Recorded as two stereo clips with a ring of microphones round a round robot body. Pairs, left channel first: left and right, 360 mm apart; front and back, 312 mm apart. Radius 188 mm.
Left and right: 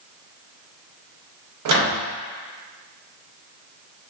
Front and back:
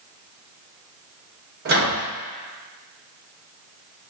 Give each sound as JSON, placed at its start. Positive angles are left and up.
{"t": 1.6, "sound": "a microwave", "azimuth_deg": -125, "distance_m": 0.7}